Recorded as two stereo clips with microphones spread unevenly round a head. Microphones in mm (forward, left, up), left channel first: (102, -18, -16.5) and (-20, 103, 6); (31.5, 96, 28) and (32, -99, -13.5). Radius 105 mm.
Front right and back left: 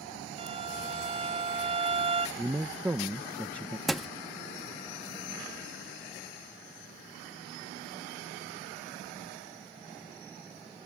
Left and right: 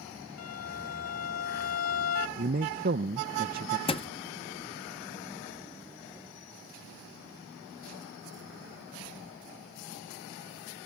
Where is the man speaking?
140° right.